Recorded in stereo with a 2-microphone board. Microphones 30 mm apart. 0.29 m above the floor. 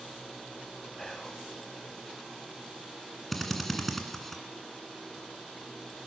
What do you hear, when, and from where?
1.0 s whispering: 15° left (ahead or behind), 1.4 m
3.3 s a drill: 5° left (ahead or behind), 1.8 m